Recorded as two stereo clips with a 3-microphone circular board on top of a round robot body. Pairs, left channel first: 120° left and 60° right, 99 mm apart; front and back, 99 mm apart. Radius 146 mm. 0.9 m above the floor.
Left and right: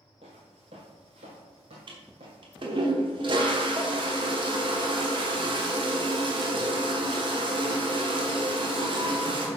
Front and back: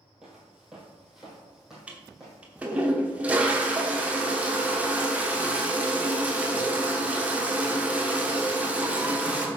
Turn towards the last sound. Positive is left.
turn(degrees=-100)